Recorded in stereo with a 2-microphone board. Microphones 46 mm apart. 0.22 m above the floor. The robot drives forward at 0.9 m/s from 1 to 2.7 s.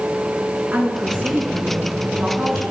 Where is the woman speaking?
40° right (ahead or behind), 2.5 m; by 2.6 s 55° right (ahead or behind), 2 m.